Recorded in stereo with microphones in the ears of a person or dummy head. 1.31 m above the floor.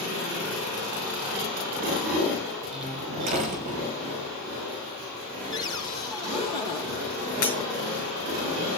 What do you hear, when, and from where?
2.7 s a door slam: 40° right (ahead or behind), 5.5 m
5.5 s a cupboard door: 30° left (ahead or behind), 2.0 m
7.4 s breaking glass: 50° left (ahead or behind), 5.5 m